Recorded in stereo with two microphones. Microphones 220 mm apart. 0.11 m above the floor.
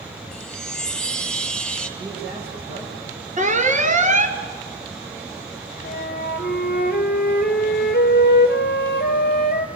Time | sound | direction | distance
0.3 | a chime | 5° left (ahead or behind) | 1.4 m
2.0 | a man speaking | 50° right (ahead or behind) | 6.5 m
3.4 | an alarm | 35° right (ahead or behind) | 1.3 m
5.8 | a flute | 50° left (ahead or behind) | 1.2 m